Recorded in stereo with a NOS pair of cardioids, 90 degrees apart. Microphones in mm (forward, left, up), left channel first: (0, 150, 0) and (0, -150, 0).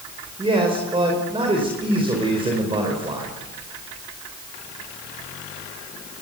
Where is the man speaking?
15° right, 5 m.